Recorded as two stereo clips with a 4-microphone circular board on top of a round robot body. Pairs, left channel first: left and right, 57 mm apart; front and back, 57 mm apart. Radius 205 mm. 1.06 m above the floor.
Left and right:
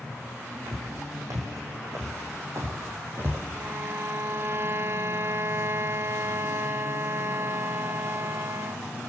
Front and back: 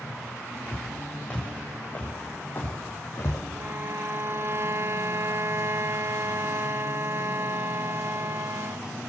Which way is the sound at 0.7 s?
75° right.